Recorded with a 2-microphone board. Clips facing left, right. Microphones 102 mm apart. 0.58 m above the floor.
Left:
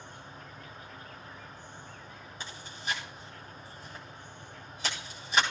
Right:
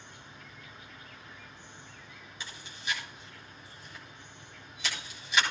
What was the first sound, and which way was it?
An insect, 40° left (ahead or behind).